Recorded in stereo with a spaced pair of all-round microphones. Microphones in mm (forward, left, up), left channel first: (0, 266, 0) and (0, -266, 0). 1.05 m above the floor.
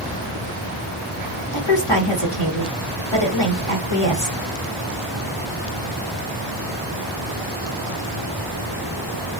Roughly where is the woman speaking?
Left.